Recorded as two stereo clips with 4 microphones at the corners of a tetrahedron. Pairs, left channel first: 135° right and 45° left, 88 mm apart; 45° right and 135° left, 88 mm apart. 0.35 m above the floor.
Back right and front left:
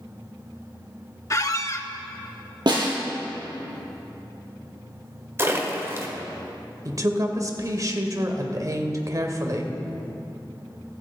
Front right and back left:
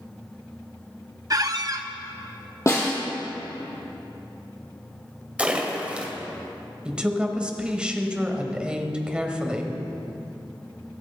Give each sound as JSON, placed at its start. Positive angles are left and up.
{"t": 1.3, "sound": "a squeak", "azimuth_deg": 175, "distance_m": 0.6}
{"t": 2.7, "sound": "a snare drum", "azimuth_deg": 10, "distance_m": 3.5}
{"t": 5.4, "sound": "a splash", "azimuth_deg": 70, "distance_m": 1.5}
{"t": 6.8, "sound": "a woman speaking", "azimuth_deg": 60, "distance_m": 1.2}